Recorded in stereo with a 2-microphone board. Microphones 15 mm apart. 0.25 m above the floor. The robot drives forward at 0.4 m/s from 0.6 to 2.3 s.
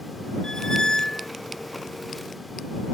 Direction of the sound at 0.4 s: 60° left (ahead or behind).